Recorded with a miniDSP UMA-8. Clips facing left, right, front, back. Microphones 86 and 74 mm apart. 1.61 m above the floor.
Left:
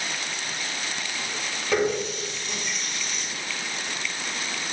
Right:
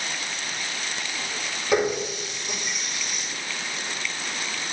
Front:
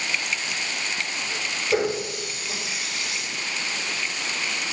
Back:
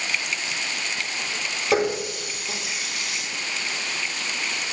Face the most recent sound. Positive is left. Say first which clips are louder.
# right 1 dB, back 2 dB
turn(degrees=-160)